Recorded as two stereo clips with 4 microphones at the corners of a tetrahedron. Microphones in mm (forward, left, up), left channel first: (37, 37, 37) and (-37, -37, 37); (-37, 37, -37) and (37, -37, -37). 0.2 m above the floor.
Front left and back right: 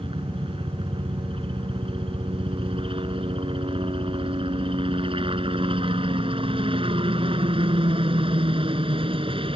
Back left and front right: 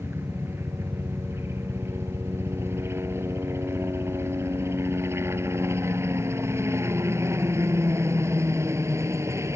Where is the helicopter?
110° right; by 9.6 s 105° right.